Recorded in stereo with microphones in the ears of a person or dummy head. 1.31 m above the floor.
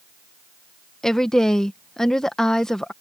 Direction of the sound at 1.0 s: 5° left (ahead or behind).